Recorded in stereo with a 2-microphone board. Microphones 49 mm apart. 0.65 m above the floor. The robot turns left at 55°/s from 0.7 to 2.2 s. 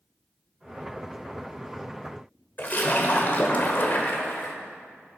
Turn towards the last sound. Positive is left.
turn(degrees=35)  # may be behind; listen again after turning